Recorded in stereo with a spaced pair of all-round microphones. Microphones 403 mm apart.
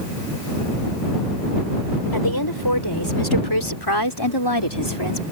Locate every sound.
2.1 s a woman speaking: 60° left (ahead or behind); by 5.2 s 90° left